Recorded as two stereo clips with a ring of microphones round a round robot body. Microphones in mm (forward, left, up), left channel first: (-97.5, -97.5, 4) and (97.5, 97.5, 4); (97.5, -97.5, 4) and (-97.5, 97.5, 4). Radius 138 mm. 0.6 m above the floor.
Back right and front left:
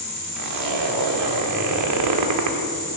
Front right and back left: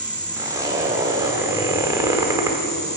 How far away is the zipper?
About 1.3 m.